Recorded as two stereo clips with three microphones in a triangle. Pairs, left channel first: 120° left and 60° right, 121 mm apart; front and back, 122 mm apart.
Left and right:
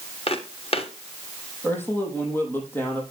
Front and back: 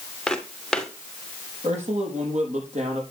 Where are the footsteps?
85° left, 2.5 m.